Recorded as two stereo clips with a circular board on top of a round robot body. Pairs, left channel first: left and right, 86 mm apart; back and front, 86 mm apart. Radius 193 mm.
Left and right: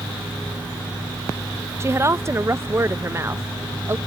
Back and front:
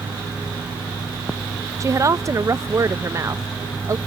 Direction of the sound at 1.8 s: 40° right.